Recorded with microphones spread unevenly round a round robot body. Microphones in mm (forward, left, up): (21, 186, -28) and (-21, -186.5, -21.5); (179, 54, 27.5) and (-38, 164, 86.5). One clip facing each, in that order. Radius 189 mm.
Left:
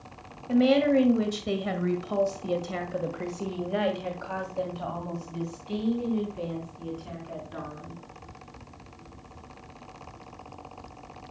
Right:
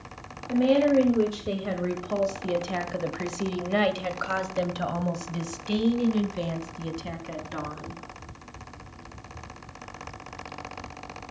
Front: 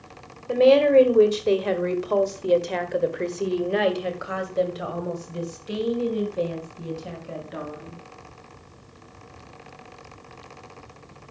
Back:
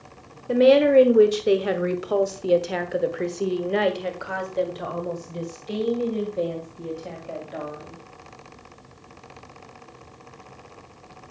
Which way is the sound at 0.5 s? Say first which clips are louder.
Even, back 1 dB; 75° left.